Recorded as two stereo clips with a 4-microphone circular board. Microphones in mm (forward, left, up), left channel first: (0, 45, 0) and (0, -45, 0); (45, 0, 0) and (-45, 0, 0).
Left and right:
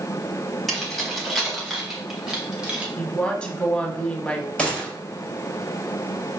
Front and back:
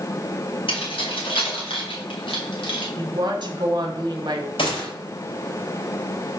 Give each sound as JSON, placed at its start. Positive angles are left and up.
{"t": 0.7, "sound": "keys jangling", "azimuth_deg": 0, "distance_m": 3.5}
{"t": 3.0, "sound": "a woman speaking", "azimuth_deg": 165, "distance_m": 1.6}
{"t": 4.6, "sound": "a gunshot", "azimuth_deg": 10, "distance_m": 3.5}